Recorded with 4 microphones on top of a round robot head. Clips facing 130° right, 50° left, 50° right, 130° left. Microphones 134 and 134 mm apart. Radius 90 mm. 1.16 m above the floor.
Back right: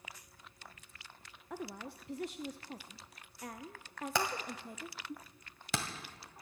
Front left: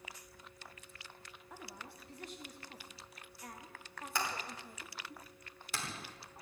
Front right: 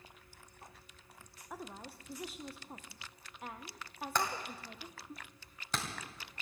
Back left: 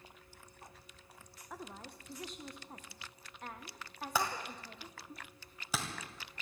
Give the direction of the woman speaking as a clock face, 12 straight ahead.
4 o'clock.